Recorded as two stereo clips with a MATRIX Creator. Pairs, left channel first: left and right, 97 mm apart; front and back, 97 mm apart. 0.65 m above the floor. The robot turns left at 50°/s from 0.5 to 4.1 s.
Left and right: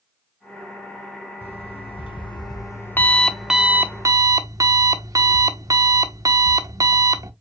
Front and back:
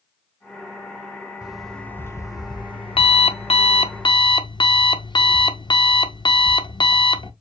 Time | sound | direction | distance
1.4 | an alarm clock | 100° left | 0.7 m